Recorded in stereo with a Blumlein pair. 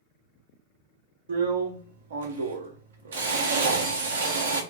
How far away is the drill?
About 0.6 m.